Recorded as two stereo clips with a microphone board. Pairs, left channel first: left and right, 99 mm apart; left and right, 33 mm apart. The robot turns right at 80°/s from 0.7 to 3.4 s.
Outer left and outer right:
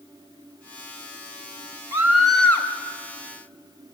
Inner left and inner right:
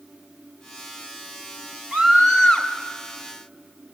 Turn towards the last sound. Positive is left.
turn(degrees=90)